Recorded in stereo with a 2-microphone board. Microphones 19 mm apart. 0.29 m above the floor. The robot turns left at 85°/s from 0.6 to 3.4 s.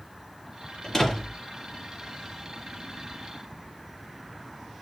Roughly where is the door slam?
Ahead left.